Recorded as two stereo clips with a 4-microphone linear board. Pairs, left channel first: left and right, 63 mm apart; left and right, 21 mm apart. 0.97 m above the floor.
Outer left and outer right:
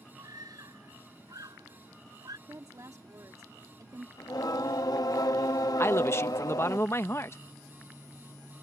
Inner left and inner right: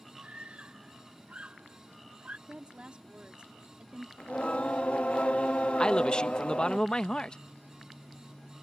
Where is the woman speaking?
60° right (ahead or behind).